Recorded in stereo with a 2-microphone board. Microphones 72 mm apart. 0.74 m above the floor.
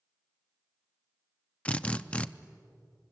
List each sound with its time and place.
1.6 s a drill: 20° left (ahead or behind), 0.6 m